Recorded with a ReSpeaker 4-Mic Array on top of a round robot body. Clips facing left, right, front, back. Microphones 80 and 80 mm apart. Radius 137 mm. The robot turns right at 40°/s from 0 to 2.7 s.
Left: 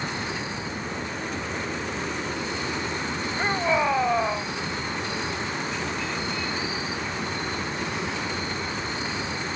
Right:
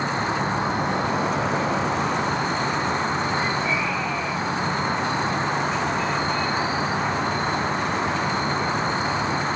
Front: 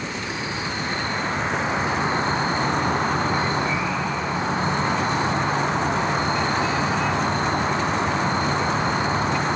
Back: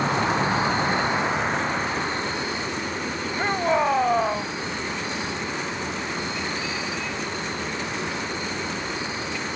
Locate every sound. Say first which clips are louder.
0.0 s an insect: right 7 dB, back 7 dB; 150° right; by 9.6 s 40° right
3.4 s a shout: even, back 1 dB; 145° left